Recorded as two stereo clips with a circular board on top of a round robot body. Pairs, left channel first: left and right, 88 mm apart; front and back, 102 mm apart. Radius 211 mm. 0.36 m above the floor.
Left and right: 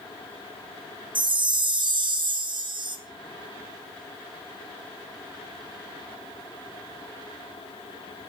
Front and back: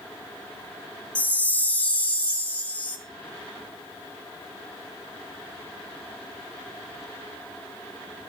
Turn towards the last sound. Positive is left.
turn(degrees=-75)